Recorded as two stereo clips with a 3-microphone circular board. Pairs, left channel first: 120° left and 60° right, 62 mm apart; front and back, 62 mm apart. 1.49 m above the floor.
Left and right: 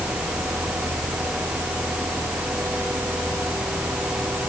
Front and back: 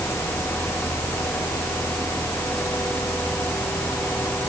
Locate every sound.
Only background noise.